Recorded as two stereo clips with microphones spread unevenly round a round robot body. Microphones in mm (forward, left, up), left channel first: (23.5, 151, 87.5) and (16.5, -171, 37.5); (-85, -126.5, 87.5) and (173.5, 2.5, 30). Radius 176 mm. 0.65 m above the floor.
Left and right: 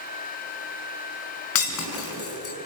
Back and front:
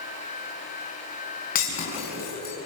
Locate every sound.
1.6 s breaking glass: 140° left, 5 m